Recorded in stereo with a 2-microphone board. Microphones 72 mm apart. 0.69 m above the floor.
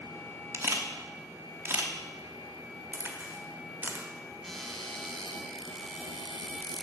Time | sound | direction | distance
0.5 | a camera shutter | 35° right (ahead or behind) | 0.9 m
2.9 | a crack | 25° right (ahead or behind) | 1.3 m
4.4 | a cupboard door | 5° left (ahead or behind) | 1.0 m